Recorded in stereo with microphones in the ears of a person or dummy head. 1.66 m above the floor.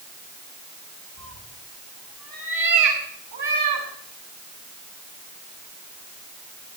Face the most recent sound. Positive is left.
turn(degrees=-50)  # may be behind; listen again after turning